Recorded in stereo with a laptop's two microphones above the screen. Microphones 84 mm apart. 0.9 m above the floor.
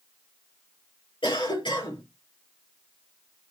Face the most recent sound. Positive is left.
turn(degrees=85)